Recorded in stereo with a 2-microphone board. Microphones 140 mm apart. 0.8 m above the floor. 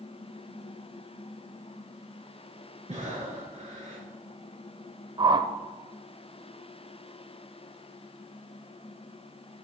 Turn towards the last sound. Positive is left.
turn(degrees=-35)  # may be behind; listen again after turning